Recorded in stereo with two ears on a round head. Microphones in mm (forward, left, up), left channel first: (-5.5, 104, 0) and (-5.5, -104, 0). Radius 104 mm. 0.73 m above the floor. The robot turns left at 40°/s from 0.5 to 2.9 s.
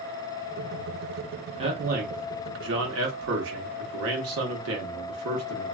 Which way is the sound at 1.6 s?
30° right.